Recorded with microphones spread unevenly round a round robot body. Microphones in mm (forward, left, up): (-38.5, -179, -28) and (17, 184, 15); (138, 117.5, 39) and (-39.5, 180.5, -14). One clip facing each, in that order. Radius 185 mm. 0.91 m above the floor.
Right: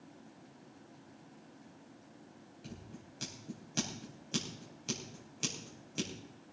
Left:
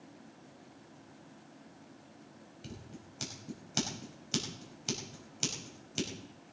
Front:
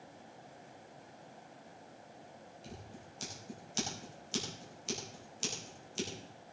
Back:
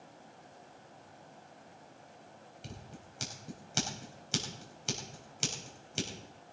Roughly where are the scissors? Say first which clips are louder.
Left 1 dB, back 1 dB; behind left.